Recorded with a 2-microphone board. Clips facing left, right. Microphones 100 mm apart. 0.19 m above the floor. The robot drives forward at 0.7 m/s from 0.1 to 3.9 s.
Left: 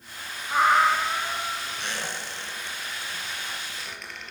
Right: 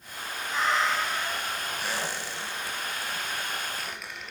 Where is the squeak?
5° right (ahead or behind), 1.6 m.